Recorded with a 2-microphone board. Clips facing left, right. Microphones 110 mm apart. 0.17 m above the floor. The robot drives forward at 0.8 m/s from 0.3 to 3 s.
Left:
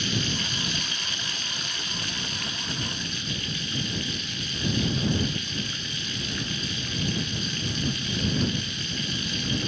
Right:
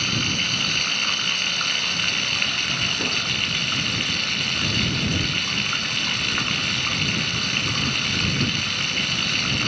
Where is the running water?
70° right (ahead or behind); by 9.7 s 80° right.